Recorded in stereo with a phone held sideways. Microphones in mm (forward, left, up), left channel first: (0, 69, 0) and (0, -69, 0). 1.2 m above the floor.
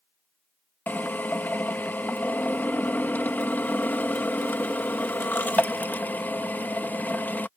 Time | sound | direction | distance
0.9 | a drill | 10° left (ahead or behind) | ?